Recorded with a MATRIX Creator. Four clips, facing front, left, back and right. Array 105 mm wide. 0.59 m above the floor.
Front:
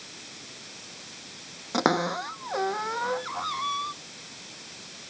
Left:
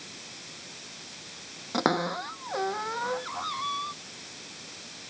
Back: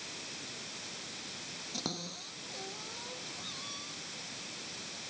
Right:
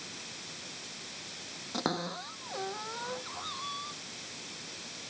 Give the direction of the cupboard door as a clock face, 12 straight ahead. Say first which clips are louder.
Left 8 dB, front 18 dB; 11 o'clock.